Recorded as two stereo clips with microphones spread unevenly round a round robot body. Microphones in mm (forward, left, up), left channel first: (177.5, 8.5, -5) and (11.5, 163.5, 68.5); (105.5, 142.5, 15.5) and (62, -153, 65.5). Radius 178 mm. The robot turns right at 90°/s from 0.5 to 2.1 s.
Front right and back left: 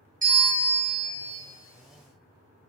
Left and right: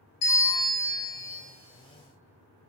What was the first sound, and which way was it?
A bell, 75° left.